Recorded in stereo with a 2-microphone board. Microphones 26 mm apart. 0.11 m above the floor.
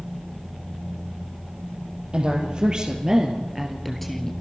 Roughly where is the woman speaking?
Right.